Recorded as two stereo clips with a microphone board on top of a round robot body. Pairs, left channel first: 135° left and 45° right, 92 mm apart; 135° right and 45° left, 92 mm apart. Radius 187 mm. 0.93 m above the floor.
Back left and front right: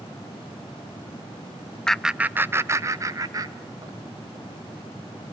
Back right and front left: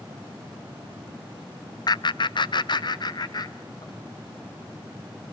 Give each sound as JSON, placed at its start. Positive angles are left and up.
{"t": 1.9, "sound": "laughter", "azimuth_deg": -145, "distance_m": 0.6}